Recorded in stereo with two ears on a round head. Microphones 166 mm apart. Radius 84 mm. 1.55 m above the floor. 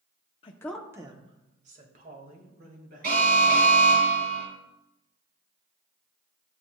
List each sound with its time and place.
0.4 s a woman speaking: 30° left (ahead or behind), 0.6 m; by 4.0 s 55° right (ahead or behind), 4 m
3.0 s an alarm: 55° right (ahead or behind), 4.5 m